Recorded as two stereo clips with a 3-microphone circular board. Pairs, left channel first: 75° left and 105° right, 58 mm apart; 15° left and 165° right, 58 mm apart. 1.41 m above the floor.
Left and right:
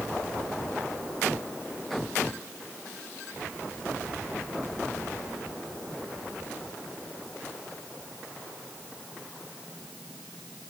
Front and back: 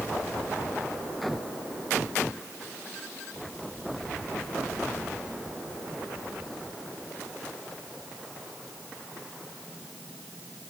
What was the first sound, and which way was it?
Only background noise.